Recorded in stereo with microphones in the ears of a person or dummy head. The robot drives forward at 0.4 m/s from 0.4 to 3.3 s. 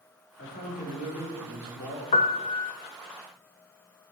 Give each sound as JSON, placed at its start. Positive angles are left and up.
{"t": 0.4, "sound": "a man speaking", "side_deg": 40, "distance_m": 3.0}
{"t": 2.1, "sound": "a piano", "side_deg": 25, "distance_m": 0.7}